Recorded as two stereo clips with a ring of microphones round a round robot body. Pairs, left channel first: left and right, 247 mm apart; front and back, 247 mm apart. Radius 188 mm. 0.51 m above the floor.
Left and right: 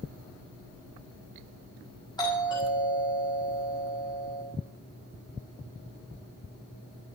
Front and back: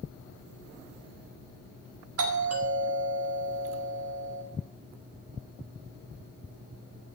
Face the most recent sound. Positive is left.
turn(degrees=165)